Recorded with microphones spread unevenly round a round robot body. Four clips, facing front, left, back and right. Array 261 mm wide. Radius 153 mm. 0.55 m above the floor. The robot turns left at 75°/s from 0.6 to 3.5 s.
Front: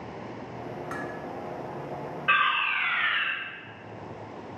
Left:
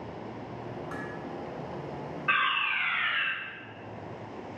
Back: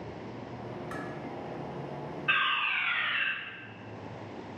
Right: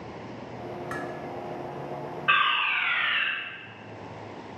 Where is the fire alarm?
30° right, 2.5 m; by 3.3 s 105° right, 2.5 m.